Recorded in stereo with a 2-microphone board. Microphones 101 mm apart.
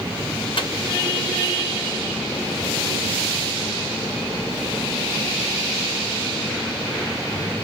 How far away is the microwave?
About 1.0 m.